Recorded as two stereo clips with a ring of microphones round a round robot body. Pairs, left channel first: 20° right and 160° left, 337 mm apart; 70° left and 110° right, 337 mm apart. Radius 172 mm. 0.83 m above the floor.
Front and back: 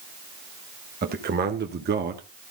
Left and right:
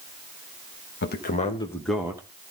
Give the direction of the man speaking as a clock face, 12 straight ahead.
8 o'clock.